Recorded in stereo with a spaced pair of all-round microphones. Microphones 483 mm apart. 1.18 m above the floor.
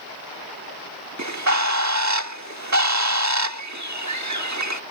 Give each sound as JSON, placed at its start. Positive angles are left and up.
{"t": 1.2, "sound": "a bird", "side_deg": -35}